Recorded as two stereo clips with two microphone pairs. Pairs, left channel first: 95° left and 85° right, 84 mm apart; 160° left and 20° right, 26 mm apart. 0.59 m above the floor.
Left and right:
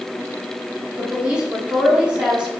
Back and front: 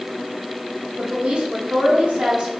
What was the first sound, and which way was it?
A woman speaking, 10° right.